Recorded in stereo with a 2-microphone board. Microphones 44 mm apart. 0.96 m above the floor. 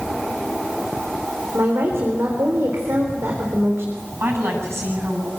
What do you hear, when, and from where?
1.5 s a woman speaking: 80° right, 4 m
4.2 s a woman speaking: 80° right, 8.5 m